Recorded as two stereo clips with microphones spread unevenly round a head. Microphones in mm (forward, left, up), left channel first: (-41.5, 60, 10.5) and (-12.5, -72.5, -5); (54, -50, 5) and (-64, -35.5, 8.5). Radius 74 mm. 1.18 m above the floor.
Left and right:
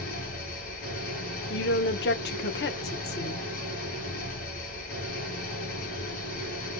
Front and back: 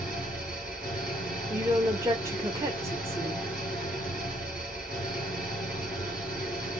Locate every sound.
0.0 s an engine running: 95° left, 2 m
1.5 s a woman speaking: 100° left, 0.6 m